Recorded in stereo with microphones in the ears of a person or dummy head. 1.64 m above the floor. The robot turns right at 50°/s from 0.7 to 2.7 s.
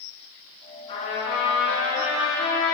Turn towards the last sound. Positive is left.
turn(degrees=120)